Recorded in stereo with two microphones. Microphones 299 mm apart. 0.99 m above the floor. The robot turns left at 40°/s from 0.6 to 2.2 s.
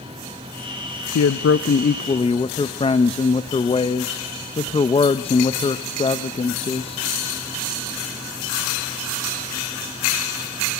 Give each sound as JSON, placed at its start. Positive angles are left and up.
{"t": 1.1, "sound": "a man speaking", "azimuth_deg": 60, "distance_m": 0.5}